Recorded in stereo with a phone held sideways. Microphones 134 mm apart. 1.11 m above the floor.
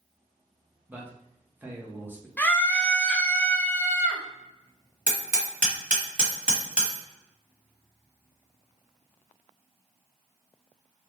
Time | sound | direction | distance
0.9 | a man speaking | 15° right (ahead or behind) | 0.7 m
2.4 | a scream | 10° left (ahead or behind) | 0.5 m
5.1 | hammering | 75° right (ahead or behind) | 1.3 m